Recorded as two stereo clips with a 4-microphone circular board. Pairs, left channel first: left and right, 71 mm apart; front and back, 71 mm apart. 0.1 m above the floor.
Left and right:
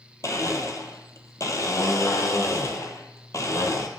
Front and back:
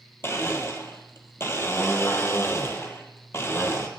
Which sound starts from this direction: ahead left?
A blender, at 0.2 s.